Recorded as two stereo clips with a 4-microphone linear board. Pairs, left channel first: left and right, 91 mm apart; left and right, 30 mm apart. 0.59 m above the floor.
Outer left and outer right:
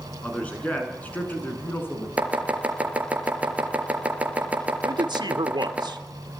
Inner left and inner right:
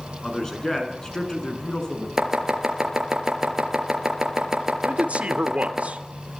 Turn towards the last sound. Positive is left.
turn(degrees=-55)  # may be behind; listen again after turning